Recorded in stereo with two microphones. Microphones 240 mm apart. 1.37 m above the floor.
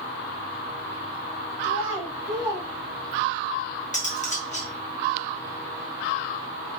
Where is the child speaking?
20° right (ahead or behind), 2.5 m; by 3.5 s 70° right (ahead or behind), 1.9 m.